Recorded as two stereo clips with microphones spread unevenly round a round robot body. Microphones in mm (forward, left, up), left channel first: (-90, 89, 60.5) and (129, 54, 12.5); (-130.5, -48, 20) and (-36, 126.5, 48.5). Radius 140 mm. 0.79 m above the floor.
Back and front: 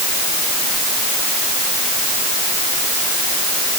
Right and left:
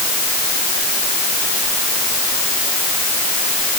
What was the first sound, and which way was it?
Only background noise.